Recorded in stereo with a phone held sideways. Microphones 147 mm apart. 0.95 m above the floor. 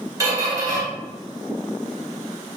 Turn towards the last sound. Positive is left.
turn(degrees=-25)  # may be behind; listen again after turning